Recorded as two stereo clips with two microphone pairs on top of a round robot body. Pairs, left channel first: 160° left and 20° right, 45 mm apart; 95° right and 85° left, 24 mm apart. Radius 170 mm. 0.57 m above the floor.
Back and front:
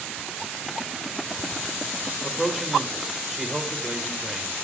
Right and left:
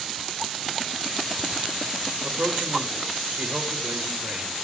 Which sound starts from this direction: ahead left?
A man speaking, at 2.2 s.